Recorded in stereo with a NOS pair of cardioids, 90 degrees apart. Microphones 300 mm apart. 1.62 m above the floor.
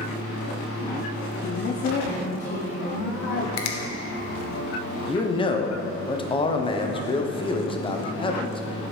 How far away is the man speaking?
About 0.9 m.